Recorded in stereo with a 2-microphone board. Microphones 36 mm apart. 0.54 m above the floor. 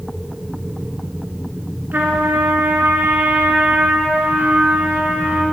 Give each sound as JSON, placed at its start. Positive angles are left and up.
{"t": 1.9, "sound": "a trumpet", "side_deg": -60, "distance_m": 2.0}